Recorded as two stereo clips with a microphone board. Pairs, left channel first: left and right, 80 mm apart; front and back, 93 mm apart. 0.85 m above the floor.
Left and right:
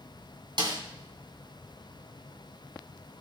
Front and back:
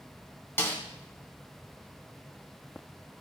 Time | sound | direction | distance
0.6 | a snare drum | 65° right | 1.8 m